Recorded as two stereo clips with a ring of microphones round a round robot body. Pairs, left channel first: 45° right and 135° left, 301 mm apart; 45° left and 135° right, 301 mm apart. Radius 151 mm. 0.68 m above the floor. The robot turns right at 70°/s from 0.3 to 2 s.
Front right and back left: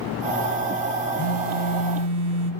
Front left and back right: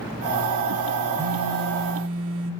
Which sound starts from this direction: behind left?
A phone buzzing, at 1.2 s.